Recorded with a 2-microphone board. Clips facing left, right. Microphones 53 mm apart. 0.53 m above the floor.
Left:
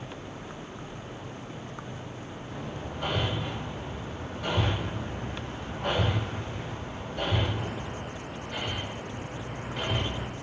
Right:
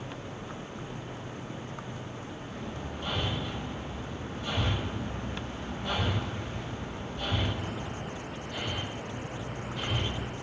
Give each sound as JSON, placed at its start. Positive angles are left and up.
{"t": 2.5, "sound": "hammering", "side_deg": 85, "distance_m": 8.5}